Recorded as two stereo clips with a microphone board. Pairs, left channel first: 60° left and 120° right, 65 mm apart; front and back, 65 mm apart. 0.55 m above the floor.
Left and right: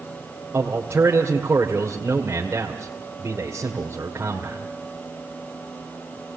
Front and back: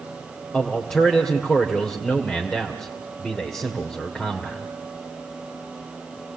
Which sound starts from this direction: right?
A man speaking, at 0.5 s.